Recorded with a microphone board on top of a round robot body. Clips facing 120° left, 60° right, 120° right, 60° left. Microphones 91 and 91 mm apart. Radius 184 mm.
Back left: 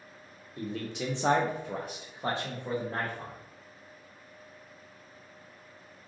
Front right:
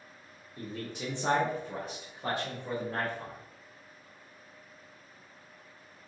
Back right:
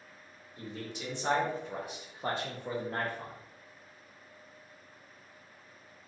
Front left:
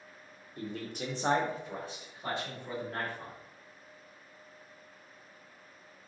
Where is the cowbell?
No cowbell in this recording.